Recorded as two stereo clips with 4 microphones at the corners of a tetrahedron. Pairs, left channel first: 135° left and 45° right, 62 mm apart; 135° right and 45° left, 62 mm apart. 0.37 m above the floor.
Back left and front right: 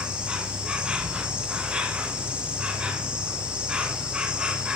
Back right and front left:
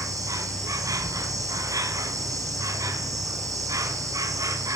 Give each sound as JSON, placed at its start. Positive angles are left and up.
{"t": 0.0, "sound": "an insect", "azimuth_deg": 30, "distance_m": 1.9}